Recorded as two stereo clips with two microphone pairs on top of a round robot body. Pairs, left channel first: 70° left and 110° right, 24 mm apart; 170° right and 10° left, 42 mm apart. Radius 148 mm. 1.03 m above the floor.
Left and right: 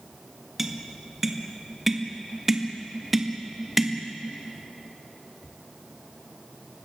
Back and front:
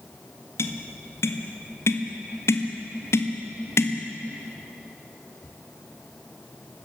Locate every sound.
0.6 s tapping: 175° left, 1.8 m